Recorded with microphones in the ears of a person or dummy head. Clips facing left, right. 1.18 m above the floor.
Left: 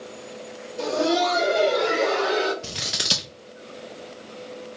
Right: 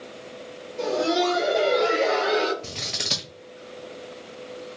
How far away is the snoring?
No snoring in this recording.